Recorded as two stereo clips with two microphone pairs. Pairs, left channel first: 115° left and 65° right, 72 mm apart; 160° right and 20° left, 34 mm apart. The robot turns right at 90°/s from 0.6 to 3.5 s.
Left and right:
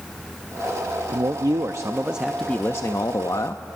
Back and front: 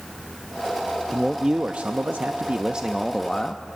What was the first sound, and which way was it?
A man speaking, 75° right.